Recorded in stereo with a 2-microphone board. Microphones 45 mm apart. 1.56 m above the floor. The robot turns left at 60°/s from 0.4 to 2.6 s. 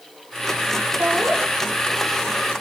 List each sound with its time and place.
1.0 s laughter: 80° right, 5 m; by 1.4 s 55° right (ahead or behind), 5 m